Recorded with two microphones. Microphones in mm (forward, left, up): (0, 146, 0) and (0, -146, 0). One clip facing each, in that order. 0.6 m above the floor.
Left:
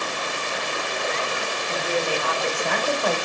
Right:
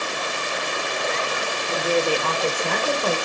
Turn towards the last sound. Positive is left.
turn(degrees=-35)  # may be behind; listen again after turning